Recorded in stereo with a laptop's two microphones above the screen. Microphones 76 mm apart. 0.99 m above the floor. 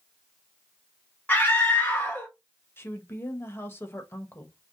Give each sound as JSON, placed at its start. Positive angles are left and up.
{"t": 1.3, "sound": "a scream", "side_deg": 25, "distance_m": 1.3}
{"t": 2.8, "sound": "a woman speaking", "side_deg": 30, "distance_m": 1.4}